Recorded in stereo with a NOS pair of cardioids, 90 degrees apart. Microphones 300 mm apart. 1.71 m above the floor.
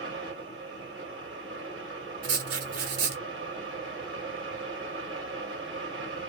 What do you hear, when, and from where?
0.0 s a fan: 40° right, 1.3 m
2.2 s writing: 50° right, 1.1 m